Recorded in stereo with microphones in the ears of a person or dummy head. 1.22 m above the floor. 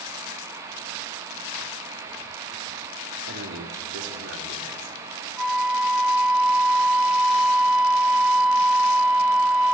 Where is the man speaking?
65° right (ahead or behind), 4 m; by 5.1 s 80° right, 4.5 m.